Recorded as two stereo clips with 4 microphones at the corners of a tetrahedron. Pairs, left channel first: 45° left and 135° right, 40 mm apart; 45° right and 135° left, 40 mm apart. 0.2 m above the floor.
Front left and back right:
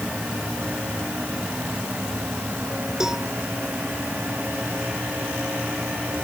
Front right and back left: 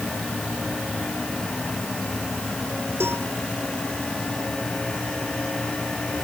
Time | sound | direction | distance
3.0 | a cowbell | 145° left | ?